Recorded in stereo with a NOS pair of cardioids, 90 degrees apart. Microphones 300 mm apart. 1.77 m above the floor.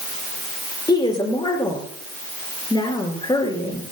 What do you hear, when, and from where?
0.9 s a woman speaking: 15° left, 6 m